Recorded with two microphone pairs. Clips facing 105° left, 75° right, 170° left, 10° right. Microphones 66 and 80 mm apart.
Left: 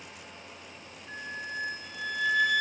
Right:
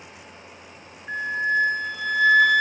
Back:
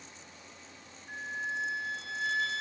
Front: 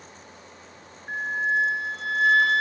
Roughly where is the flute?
Ahead right.